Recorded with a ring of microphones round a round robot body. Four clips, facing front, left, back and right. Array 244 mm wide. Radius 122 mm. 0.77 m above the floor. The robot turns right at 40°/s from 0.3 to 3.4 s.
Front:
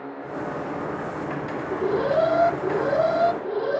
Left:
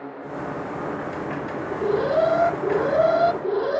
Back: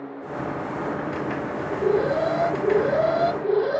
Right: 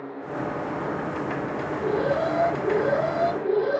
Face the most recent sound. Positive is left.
turn(degrees=115)